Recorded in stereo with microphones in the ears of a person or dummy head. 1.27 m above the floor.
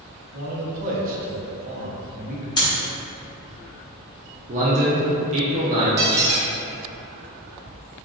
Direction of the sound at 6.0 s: 20° right (ahead or behind).